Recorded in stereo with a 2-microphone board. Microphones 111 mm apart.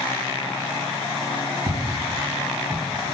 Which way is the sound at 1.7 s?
50° right (ahead or behind).